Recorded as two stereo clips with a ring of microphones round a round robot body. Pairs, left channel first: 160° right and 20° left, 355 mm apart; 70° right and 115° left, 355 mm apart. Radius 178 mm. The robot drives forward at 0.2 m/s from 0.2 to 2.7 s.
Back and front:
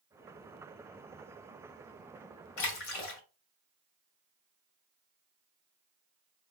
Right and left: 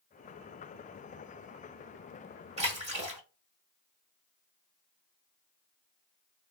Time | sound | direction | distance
2.6 | a splash | 175° right | 1.0 m